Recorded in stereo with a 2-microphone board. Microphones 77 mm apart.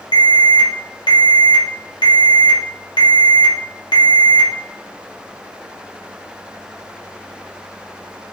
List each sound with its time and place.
0.1 s an alarm: 75° left (ahead or behind), 1.0 m